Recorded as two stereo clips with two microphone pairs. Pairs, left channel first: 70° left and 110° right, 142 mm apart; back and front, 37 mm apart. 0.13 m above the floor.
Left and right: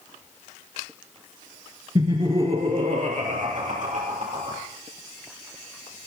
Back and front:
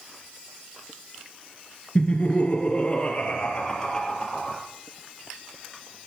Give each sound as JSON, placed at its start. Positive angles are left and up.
{"t": 1.9, "sound": "laughter", "azimuth_deg": -155, "distance_m": 1.8}